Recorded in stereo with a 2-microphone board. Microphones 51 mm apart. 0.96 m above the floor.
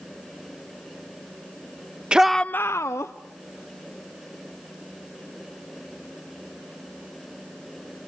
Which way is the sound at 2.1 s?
20° right (ahead or behind).